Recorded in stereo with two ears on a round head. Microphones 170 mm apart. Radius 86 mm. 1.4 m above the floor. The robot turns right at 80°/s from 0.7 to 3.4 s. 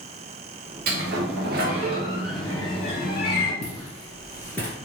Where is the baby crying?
No baby crying in this recording.